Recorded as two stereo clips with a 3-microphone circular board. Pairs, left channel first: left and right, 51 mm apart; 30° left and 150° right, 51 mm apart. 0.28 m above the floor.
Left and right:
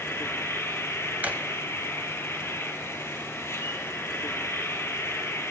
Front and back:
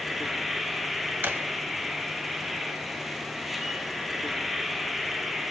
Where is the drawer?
130° right, 0.9 m.